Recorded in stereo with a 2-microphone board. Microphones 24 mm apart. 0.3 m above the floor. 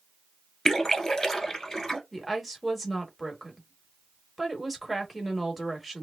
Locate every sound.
0.7 s a splash: 25° left (ahead or behind), 1.1 m
2.1 s a woman speaking: centre (ahead or behind), 0.9 m